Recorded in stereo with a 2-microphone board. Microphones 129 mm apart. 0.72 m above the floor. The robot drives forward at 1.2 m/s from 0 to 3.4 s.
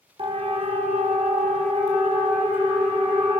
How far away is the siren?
About 2.5 m.